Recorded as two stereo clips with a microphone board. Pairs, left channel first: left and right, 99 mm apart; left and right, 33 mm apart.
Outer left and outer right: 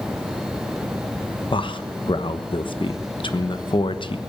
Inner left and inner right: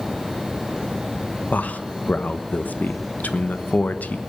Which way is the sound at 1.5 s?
55° left (ahead or behind).